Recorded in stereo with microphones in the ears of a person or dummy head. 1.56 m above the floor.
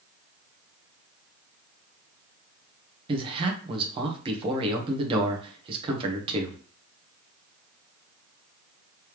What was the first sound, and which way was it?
A man speaking, 30° right (ahead or behind).